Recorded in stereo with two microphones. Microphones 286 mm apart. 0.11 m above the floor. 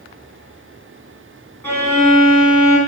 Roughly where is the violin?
Centre.